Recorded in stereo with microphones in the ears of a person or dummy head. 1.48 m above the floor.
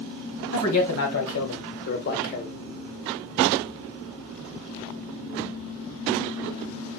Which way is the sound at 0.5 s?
80° left.